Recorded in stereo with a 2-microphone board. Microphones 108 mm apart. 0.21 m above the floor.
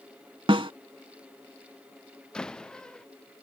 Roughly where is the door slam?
Centre.